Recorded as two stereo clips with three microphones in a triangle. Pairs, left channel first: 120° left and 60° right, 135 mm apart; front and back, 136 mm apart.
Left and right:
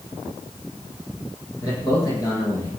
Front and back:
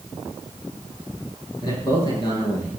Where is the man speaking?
60° left, 8.5 m; by 2.7 s 55° left, 8.5 m.